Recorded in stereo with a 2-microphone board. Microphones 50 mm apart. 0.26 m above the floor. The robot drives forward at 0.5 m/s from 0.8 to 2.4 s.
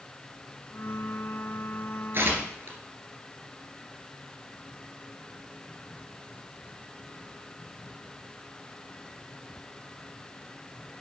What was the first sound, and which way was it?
Tearing paper, 50° right (ahead or behind).